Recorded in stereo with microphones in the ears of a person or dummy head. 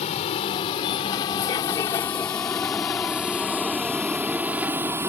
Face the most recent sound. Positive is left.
turn(degrees=-10)  # may be behind; listen again after turning